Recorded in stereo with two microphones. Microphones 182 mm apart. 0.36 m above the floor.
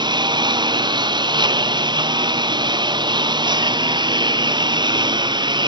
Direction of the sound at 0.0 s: 25° right (ahead or behind).